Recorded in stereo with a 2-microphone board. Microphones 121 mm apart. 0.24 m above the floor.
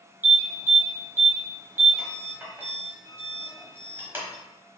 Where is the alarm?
15° right (ahead or behind), 1.2 m.